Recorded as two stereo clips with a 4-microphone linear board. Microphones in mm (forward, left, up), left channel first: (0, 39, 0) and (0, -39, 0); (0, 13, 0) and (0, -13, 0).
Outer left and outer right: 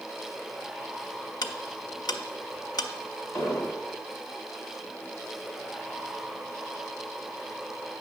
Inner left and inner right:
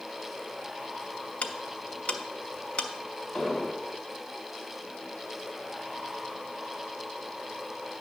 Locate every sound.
1.4 s ticking: 65° left (ahead or behind), 0.6 m
3.3 s an explosion: 35° left (ahead or behind), 1.7 m